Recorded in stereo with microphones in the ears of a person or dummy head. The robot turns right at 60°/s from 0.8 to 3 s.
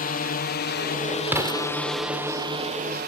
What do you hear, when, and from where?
0.0 s a drone: 40° left (ahead or behind); by 3.1 s 45° right (ahead or behind)
1.3 s an explosion: 10° right (ahead or behind); by 1.6 s 30° right (ahead or behind)